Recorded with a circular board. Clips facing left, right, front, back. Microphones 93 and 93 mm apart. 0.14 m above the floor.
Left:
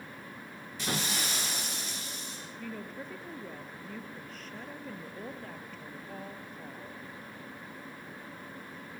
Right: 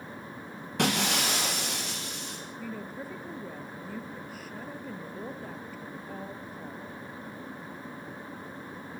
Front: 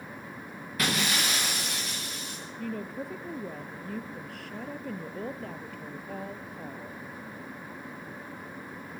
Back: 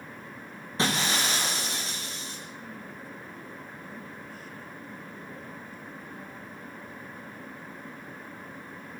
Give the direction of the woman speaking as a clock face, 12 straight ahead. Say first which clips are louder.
Right 2 dB, front 7 dB; 12 o'clock.